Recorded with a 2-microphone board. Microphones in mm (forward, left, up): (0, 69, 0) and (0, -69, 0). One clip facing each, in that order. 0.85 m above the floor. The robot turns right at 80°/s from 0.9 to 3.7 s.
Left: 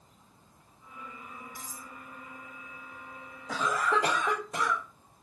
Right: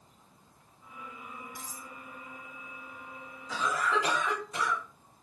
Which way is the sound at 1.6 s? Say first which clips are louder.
Even; 25° left (ahead or behind).